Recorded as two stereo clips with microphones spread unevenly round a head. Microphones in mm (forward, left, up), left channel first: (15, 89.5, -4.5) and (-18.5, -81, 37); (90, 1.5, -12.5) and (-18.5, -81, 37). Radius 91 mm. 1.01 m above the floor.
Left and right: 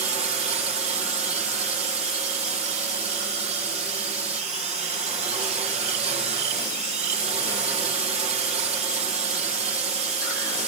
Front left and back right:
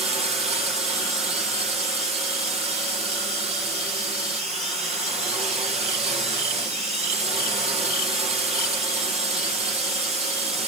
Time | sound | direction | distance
0.0 | a drone | 130° right | ?